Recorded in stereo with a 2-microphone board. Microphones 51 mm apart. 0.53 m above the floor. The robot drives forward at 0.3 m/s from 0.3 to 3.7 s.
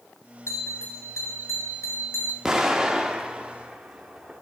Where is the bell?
75° left (ahead or behind), 1.8 m; by 2.4 s 80° left, 1.7 m.